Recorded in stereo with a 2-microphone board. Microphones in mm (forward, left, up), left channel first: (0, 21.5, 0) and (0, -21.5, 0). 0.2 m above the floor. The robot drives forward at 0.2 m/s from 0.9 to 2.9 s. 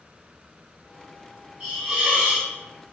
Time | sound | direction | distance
1.6 | a hiss | 25° right (ahead or behind) | 1.2 m